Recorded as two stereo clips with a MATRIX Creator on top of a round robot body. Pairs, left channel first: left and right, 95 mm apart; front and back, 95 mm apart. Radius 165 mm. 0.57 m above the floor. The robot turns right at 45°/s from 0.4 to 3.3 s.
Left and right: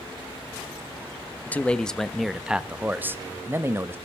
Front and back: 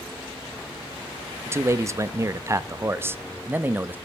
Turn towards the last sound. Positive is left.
turn(degrees=-130)